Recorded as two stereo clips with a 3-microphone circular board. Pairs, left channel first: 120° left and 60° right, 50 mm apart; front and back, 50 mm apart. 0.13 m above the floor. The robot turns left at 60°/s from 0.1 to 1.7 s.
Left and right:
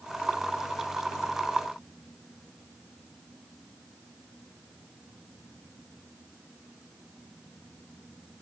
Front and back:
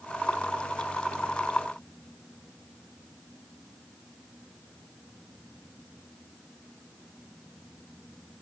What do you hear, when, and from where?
Only background noise.